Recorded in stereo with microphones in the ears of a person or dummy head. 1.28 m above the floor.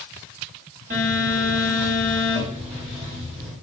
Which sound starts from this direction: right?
A phone buzzing, at 0.9 s.